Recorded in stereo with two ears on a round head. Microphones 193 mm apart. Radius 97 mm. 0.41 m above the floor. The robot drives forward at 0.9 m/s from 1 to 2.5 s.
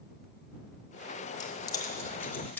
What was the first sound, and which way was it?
Keys jangling, 20° left (ahead or behind).